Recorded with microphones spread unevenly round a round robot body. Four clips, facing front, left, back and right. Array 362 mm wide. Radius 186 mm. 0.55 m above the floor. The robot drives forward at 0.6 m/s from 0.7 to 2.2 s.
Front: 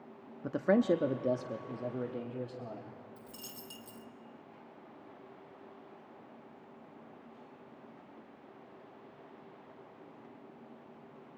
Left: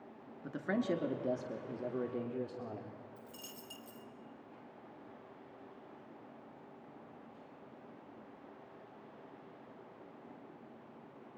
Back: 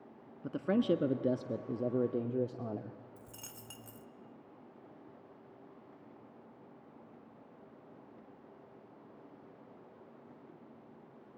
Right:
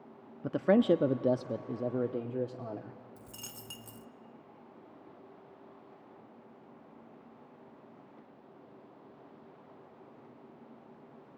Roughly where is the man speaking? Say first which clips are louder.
Right 10 dB, front 3 dB; right.